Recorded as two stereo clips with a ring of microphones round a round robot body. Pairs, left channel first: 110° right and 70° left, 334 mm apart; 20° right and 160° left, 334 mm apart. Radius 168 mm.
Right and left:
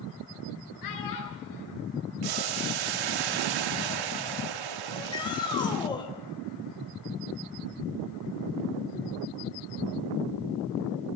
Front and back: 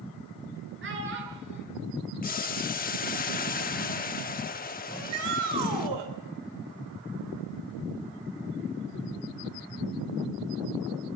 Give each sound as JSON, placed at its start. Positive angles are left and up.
{"t": 0.8, "sound": "a child speaking", "azimuth_deg": -145, "distance_m": 9.0}
{"t": 2.2, "sound": "boiling", "azimuth_deg": 45, "distance_m": 1.1}
{"t": 4.9, "sound": "a shout", "azimuth_deg": 170, "distance_m": 3.5}